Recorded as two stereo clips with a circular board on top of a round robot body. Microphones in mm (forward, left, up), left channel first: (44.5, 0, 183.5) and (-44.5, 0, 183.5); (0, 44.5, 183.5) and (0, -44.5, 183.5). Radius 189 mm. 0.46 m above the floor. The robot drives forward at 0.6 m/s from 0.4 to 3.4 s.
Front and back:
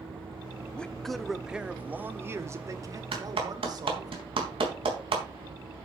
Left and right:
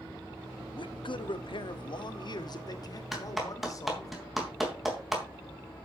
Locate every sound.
0.7 s a man speaking: 75° left, 1.4 m; by 4.1 s 135° left, 1.9 m
3.1 s a clap: straight behind, 4 m